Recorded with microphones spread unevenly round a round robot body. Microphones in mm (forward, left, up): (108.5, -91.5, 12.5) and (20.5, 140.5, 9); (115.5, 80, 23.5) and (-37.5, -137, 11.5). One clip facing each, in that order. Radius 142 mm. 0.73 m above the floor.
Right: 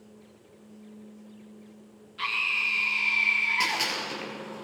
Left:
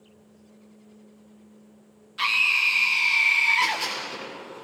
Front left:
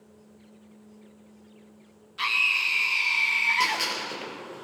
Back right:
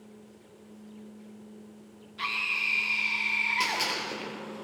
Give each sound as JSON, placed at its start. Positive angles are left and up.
{"t": 2.2, "sound": "a scream", "azimuth_deg": 125, "distance_m": 1.8}
{"t": 3.6, "sound": "a gunshot", "azimuth_deg": -40, "distance_m": 7.0}